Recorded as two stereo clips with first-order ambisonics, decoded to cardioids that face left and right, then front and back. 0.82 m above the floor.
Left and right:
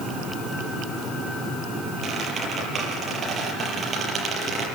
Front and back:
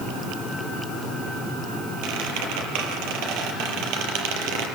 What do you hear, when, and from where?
2.0 s a squeak: 160° right, 6 m